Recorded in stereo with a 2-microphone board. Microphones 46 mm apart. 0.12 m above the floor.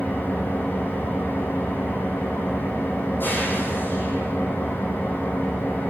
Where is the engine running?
45° left (ahead or behind), 2 m.